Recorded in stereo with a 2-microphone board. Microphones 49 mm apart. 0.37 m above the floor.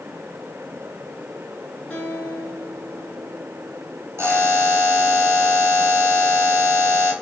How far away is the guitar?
About 2.0 m.